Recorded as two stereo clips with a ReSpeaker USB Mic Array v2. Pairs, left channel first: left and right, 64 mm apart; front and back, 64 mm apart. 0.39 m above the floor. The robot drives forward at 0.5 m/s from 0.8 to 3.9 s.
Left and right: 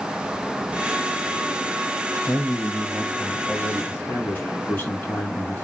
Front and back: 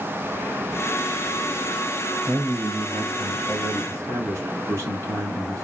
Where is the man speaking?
130° left, 2 m; by 5.7 s 145° left, 3 m.